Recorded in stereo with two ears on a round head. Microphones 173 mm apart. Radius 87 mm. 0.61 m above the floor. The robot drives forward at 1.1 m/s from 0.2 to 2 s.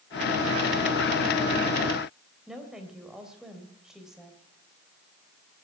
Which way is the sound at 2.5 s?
5° right (ahead or behind).